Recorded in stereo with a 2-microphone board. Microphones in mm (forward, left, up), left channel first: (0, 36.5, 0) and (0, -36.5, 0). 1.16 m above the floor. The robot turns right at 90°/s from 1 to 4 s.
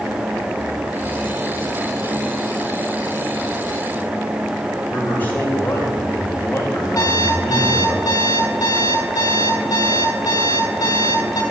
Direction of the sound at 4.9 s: 25° left (ahead or behind).